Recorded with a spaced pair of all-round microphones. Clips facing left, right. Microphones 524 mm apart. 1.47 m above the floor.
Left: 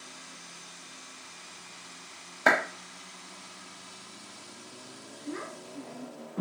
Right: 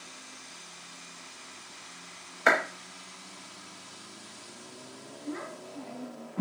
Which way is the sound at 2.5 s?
60° left (ahead or behind).